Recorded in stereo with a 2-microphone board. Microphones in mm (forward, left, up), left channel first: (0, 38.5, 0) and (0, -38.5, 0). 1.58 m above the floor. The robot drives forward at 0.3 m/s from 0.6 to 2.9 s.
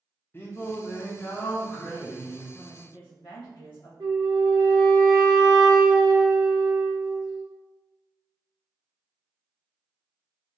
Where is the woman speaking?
80° left, 1.5 m; by 3.9 s 75° left (ahead or behind), 1.5 m.